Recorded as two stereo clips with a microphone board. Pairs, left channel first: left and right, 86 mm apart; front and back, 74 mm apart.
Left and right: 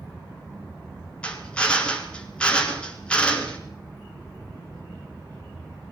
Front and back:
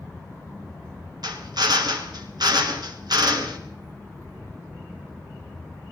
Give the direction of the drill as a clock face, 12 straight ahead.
7 o'clock.